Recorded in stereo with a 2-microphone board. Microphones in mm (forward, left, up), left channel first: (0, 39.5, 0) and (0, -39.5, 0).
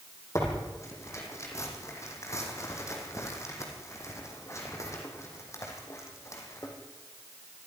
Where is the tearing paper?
40° left (ahead or behind), 5.5 m.